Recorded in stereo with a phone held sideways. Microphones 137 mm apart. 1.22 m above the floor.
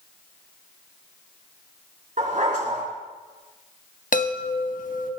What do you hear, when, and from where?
2.2 s a dog barking: 75° right (ahead or behind), 3.5 m
4.1 s a chime: 75° left (ahead or behind), 1.2 m